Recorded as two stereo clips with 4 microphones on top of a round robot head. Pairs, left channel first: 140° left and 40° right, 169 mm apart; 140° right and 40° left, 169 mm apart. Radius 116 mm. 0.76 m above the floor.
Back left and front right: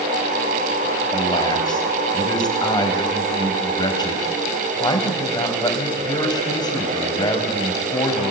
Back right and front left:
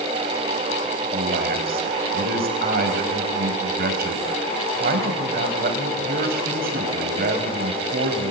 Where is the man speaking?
75° left, 4 m.